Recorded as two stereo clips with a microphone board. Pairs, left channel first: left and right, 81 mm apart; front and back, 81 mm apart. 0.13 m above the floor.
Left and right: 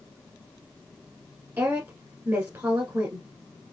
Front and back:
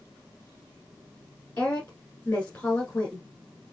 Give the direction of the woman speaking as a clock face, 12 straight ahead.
2 o'clock.